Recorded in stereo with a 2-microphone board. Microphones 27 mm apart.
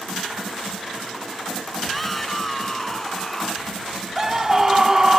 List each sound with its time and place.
1.8 s a shout: 5° left (ahead or behind); by 3.7 s 20° left (ahead or behind)
4.2 s a scream: 15° right (ahead or behind)